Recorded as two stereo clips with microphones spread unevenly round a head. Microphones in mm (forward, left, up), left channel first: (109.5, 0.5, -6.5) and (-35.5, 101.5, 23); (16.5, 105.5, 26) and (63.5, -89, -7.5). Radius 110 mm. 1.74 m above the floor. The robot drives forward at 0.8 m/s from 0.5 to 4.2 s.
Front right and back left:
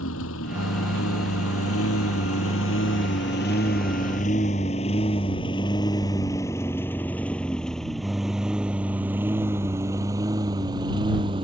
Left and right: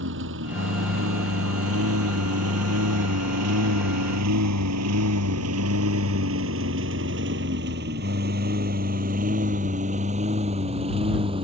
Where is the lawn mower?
50° right; by 11.4 s 145° right.